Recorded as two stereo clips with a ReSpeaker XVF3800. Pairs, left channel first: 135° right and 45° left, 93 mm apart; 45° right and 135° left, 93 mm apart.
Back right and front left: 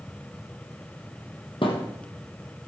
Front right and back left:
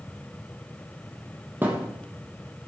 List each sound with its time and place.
1.6 s a thud: 155° right, 2.5 m